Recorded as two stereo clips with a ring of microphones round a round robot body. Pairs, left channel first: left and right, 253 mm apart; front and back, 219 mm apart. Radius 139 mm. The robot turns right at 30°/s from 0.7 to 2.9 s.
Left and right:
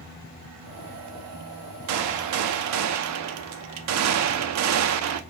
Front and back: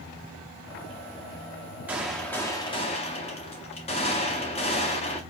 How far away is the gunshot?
About 0.6 m.